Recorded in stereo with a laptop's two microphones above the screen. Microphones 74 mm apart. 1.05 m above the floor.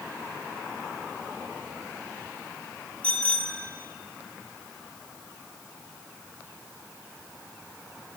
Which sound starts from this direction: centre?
A bicycle bell, at 3.0 s.